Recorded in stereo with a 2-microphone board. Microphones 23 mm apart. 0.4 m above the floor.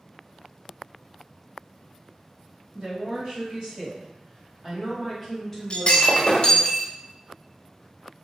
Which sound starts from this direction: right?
A woman speaking, at 2.7 s.